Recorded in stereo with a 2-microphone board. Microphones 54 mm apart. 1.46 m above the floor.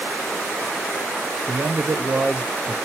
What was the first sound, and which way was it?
A man speaking, 70° right (ahead or behind).